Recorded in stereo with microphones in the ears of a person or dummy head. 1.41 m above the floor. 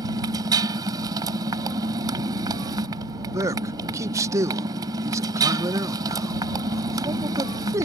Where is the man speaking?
15° right (ahead or behind).